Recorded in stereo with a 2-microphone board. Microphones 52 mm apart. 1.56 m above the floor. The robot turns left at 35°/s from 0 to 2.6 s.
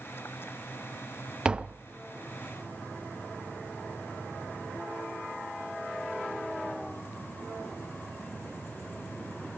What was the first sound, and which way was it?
Tapping, 15° right (ahead or behind).